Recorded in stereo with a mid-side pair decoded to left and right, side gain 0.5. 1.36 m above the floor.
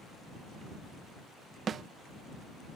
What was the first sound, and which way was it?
A snare drum, 50° right.